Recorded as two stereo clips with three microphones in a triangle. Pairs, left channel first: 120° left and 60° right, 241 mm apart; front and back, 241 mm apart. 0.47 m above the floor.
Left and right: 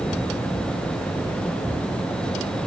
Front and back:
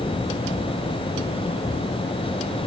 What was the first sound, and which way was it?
Only background noise.